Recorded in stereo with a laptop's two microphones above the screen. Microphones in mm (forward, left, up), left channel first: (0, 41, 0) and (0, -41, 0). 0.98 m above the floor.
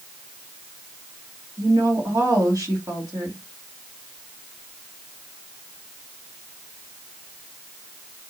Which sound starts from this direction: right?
A woman speaking, at 1.6 s.